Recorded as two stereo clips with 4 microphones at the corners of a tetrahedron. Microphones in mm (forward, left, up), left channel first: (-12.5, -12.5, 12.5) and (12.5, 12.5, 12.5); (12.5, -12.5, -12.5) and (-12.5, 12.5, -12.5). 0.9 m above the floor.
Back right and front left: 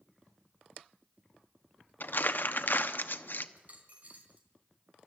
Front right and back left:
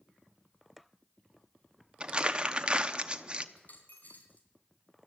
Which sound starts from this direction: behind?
Crumpling, at 2.0 s.